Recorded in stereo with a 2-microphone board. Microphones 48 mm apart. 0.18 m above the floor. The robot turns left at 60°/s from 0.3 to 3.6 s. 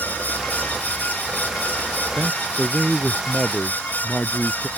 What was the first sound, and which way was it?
A man speaking, 125° right.